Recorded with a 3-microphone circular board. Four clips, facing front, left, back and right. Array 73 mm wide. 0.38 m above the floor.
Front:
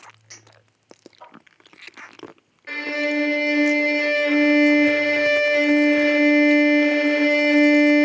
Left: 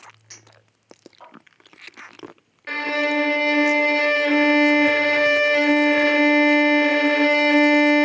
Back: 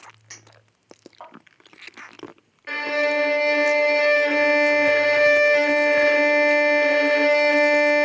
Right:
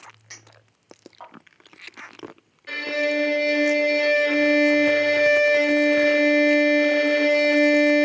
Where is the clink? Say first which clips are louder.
Right 2 dB, back 1 dB; 155° right, 1.5 m.